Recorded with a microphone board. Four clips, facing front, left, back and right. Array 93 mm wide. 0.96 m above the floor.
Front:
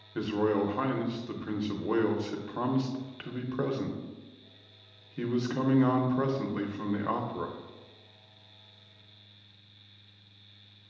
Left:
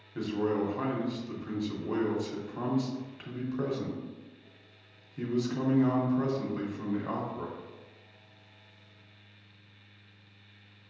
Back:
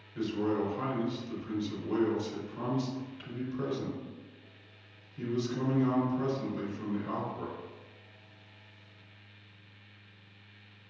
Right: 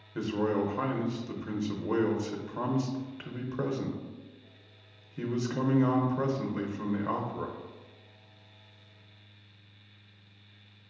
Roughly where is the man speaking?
Ahead right.